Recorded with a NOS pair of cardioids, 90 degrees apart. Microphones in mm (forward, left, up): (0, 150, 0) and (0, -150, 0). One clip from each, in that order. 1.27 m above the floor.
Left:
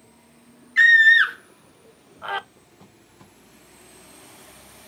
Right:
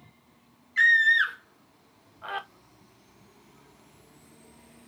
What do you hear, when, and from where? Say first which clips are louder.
0.8 s a scream: left 7 dB; 25° left, 0.6 m